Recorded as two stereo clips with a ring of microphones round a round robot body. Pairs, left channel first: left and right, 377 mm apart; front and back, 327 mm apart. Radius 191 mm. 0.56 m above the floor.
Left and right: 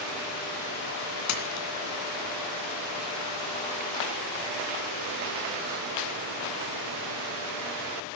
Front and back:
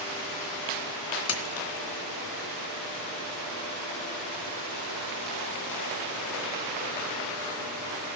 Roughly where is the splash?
Ahead left.